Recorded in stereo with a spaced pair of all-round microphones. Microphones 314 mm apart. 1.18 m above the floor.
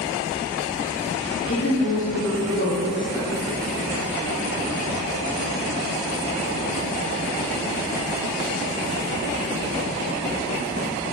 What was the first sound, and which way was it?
A woman speaking, 40° left (ahead or behind).